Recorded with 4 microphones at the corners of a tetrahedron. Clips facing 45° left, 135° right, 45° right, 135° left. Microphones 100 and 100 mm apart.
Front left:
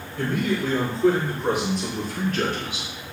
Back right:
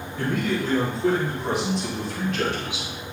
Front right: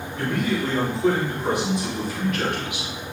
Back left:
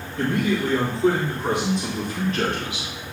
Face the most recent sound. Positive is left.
turn(degrees=85)